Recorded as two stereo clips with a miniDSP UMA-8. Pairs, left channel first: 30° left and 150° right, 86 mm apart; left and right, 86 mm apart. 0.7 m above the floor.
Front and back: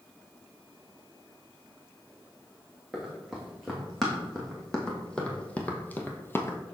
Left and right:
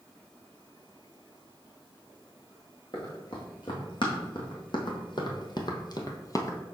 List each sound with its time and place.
2.9 s running footsteps: 120° left, 2.5 m; by 6.6 s 70° left, 0.8 m